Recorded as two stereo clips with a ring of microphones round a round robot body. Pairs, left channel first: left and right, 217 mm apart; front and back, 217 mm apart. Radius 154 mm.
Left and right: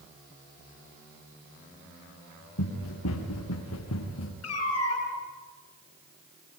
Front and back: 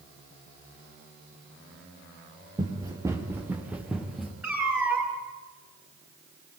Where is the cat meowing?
95° left, 7.5 m.